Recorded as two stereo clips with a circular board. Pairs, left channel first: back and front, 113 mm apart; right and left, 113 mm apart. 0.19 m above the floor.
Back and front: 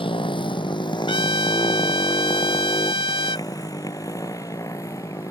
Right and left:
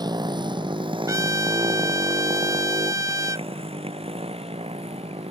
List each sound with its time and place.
0.0 s a motorcycle: 140° left; by 5.3 s 120° left
1.1 s a trumpet: 145° left